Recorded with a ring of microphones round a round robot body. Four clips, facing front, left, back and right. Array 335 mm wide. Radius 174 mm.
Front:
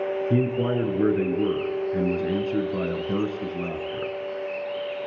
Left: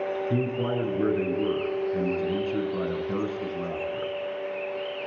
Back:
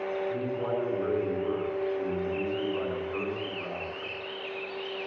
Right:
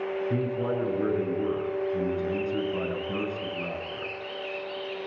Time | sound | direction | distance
0.3 | a man speaking | 5° left | 7 m